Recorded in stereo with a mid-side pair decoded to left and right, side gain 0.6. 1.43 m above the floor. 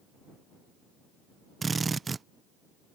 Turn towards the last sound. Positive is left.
turn(degrees=-25)